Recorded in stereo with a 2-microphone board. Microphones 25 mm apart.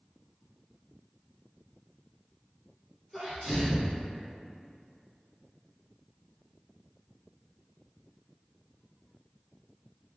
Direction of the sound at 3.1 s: 5° right (ahead or behind).